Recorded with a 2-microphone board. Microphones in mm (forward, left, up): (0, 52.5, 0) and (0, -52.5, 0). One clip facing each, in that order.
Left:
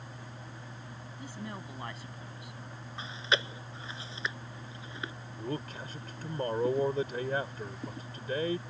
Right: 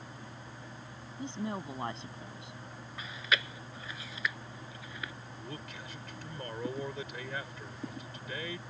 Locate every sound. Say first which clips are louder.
1.2 s a woman speaking: right 6 dB; 25° right (ahead or behind)
3.0 s chewing: left 2 dB; 30° left (ahead or behind)
5.4 s a man speaking: left 9 dB; 40° left (ahead or behind)